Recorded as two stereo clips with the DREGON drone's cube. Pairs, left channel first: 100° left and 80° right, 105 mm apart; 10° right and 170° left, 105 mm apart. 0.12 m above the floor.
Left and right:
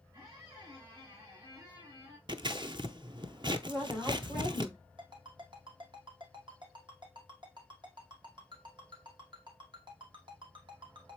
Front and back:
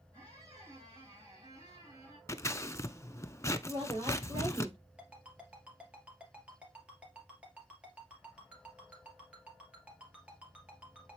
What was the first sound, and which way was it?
A squeak, 135° right.